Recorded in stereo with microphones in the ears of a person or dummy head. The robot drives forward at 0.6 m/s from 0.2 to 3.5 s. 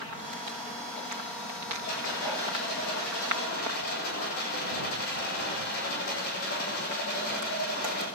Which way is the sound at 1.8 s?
60° left (ahead or behind).